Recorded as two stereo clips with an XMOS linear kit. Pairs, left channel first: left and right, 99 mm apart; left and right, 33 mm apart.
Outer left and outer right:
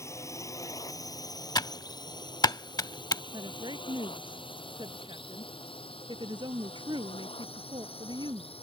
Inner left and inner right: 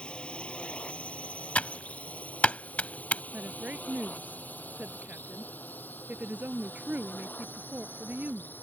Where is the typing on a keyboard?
45° left (ahead or behind).